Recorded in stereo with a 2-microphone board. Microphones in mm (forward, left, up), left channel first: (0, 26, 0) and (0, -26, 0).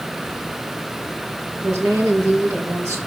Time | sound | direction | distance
1.6 | a woman speaking | 65° right (ahead or behind) | 3.5 m